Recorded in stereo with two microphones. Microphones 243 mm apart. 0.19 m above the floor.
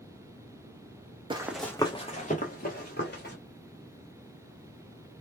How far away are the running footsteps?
About 0.5 m.